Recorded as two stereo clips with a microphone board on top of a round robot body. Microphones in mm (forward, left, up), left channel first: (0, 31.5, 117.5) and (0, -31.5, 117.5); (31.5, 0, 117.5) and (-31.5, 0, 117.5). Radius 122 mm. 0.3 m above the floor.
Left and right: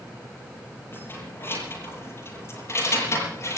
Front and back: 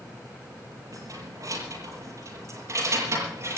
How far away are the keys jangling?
About 6.5 m.